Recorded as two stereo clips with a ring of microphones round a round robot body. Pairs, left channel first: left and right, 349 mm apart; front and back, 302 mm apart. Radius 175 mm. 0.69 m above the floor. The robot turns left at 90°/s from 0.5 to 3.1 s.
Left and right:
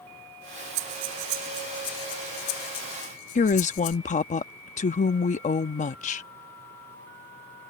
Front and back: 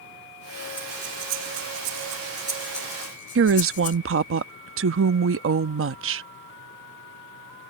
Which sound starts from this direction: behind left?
A woman speaking, at 3.4 s.